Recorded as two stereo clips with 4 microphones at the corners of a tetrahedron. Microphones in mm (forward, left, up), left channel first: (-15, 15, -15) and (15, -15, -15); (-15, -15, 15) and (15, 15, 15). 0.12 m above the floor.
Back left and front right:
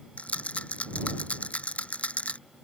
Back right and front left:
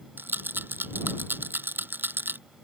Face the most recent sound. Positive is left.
turn(degrees=80)